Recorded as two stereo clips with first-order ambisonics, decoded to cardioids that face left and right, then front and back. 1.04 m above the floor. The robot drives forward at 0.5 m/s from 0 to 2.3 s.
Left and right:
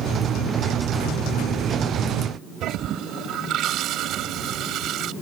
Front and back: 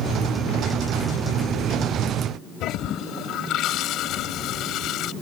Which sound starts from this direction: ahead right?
A toilet flushing, at 2.6 s.